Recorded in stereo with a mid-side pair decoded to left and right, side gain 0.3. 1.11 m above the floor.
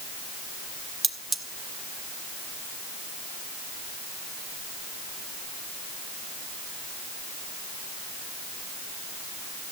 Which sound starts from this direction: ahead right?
Cutlery clinking, at 1.0 s.